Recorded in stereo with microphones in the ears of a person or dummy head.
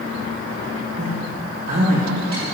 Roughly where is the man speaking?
Right.